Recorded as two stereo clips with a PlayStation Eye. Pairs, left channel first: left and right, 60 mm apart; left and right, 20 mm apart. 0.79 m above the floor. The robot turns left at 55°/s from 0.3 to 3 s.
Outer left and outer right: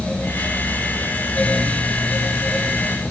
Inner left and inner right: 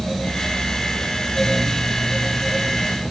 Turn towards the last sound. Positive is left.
No sound to turn to.